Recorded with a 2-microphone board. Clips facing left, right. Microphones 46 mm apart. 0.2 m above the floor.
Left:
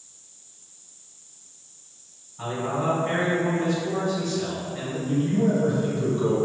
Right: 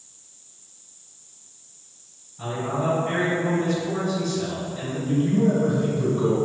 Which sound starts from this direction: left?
A man speaking, at 2.4 s.